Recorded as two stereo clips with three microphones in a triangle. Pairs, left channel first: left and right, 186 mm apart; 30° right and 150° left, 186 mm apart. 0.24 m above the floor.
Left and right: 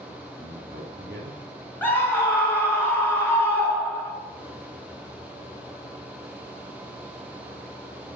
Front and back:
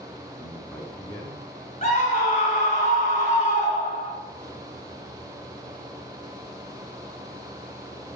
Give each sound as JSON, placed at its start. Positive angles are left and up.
{"t": 0.4, "sound": "a man speaking", "azimuth_deg": -120, "distance_m": 2.5}
{"t": 1.8, "sound": "a scream", "azimuth_deg": 10, "distance_m": 2.5}